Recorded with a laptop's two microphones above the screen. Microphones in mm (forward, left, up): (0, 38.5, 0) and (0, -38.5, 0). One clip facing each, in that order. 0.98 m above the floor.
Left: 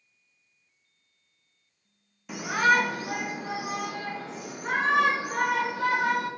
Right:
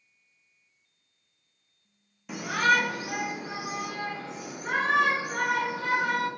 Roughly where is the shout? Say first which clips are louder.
Left 1 dB; centre.